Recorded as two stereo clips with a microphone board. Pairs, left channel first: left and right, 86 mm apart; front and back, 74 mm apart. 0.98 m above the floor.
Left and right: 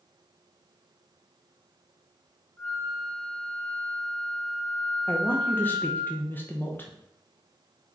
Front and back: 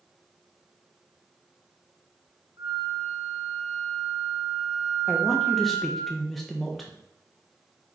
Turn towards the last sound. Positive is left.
turn(degrees=85)